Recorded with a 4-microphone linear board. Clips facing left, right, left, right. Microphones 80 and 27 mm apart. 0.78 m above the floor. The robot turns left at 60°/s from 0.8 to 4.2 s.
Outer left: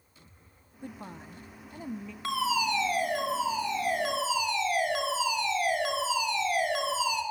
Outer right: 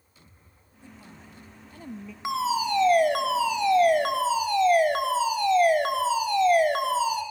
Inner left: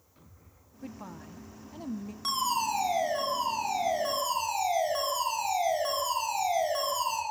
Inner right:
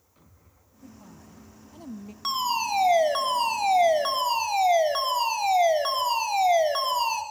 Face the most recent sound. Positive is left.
turn(degrees=-135)